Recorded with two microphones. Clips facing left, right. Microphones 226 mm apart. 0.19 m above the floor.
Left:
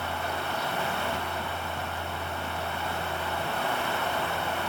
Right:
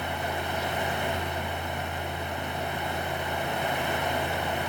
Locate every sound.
Only background noise.